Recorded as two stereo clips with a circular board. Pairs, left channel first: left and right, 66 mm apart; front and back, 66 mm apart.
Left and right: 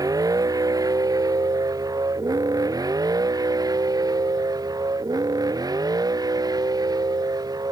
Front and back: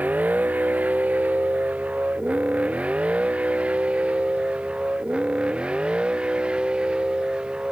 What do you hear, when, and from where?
0.0 s a vehicle: 115° right; by 7.7 s 105° right